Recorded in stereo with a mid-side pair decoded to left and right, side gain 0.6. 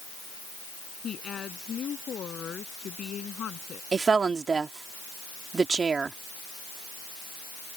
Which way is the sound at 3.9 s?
30° right.